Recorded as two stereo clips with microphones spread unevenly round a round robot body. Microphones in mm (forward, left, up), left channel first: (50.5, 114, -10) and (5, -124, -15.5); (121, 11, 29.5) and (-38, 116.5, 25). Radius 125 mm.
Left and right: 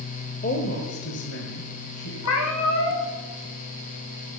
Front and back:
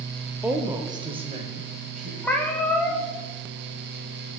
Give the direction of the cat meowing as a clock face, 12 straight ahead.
10 o'clock.